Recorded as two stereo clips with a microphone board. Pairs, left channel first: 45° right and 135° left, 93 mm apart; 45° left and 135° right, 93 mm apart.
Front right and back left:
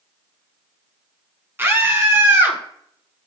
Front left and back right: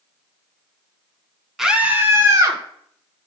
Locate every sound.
1.6 s a scream: 145° left, 1.3 m; by 2.6 s 165° right, 2.0 m